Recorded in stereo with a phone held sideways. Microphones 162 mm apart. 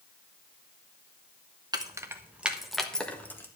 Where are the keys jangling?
25° right (ahead or behind), 1.1 m; by 3.5 s 15° left (ahead or behind), 1.5 m.